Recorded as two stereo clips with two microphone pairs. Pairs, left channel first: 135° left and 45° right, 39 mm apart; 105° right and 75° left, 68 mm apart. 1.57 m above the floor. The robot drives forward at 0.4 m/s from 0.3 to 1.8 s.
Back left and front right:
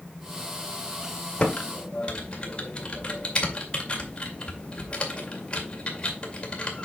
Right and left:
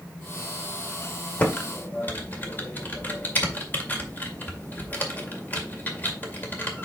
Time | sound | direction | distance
1.4 | typing on a keyboard | 165° right | 1.9 m